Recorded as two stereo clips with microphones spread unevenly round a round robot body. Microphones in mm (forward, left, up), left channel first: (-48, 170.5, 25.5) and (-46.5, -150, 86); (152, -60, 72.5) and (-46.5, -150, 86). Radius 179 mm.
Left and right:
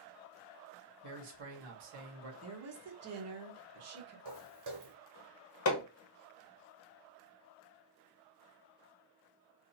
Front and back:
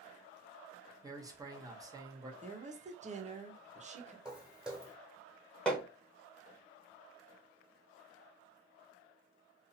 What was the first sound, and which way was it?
A man speaking, 80° right.